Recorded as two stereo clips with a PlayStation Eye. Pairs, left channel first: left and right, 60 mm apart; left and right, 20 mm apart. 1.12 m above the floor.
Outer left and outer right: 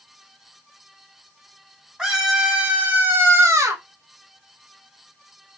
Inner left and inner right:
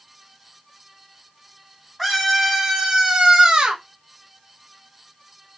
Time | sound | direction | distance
2.0 | a scream | 5° right (ahead or behind) | 1.5 m